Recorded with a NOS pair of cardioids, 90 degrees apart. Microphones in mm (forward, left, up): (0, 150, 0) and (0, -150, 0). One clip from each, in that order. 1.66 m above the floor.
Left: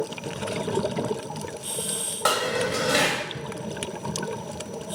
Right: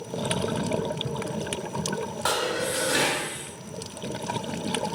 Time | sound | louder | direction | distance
2.2 | dishes clattering | left 3 dB | 35° left | 2 m